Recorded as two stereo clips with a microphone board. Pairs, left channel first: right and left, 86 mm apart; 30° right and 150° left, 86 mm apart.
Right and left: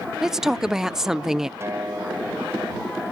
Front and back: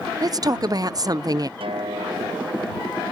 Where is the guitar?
150° left.